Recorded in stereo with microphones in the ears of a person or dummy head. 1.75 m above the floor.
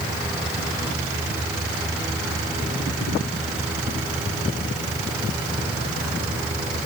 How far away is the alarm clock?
I don't hear an alarm clock.